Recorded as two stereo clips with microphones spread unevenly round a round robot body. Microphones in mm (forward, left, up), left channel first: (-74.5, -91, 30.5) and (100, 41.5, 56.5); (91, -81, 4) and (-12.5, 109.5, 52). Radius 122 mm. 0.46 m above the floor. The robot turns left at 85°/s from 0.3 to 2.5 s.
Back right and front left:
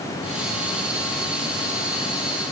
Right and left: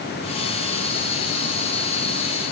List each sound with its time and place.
Only background noise.